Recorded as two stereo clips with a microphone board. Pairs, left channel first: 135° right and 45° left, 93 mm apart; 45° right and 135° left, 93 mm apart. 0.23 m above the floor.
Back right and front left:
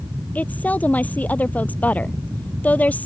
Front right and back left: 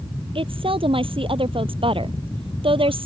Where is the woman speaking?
155° left.